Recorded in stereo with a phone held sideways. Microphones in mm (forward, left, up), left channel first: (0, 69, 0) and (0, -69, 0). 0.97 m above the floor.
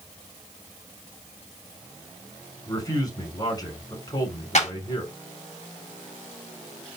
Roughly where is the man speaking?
Left.